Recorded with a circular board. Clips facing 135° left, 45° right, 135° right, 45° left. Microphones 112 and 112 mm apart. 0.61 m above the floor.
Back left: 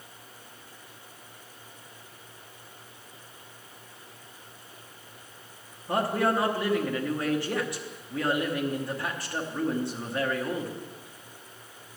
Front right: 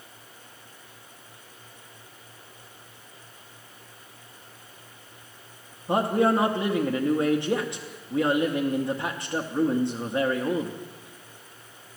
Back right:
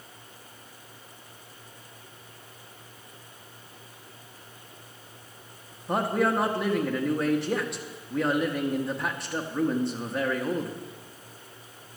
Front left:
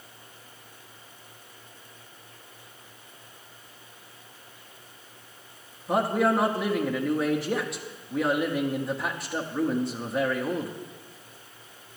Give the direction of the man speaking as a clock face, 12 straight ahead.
1 o'clock.